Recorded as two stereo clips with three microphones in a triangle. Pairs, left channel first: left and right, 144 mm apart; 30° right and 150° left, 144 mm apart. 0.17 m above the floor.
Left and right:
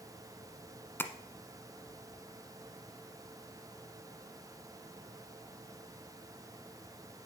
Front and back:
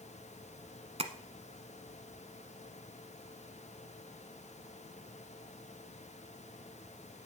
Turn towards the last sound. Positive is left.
turn(degrees=160)